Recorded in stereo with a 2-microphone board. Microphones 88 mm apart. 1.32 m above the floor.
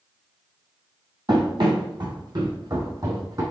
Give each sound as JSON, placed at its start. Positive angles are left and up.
{"t": 1.3, "sound": "running footsteps", "side_deg": -60, "distance_m": 2.5}